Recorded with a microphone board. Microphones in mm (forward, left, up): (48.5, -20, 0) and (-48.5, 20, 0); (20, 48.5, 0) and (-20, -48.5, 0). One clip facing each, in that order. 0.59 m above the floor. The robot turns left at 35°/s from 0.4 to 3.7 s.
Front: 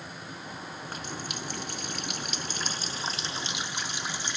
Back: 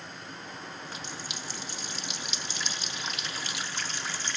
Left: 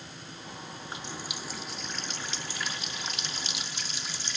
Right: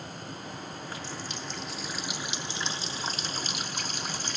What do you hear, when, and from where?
0.8 s a running tap: 5° left, 0.6 m; by 4.4 s 95° right, 0.6 m